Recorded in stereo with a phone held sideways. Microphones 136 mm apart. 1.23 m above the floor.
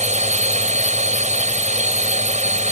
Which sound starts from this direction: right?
A drone, at 0.0 s.